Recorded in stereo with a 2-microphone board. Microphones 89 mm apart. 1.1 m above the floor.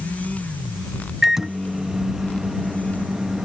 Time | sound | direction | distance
1.2 | a microwave | 5° right (ahead or behind) | ?